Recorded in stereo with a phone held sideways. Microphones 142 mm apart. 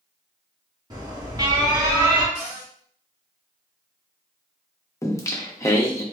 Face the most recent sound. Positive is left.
turn(degrees=20)  # may be behind; listen again after turning